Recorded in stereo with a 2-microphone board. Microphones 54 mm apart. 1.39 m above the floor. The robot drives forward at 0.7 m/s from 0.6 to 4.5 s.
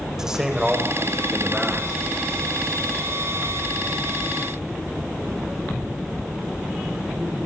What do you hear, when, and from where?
0.2 s a man speaking: 10° right (ahead or behind), 5.5 m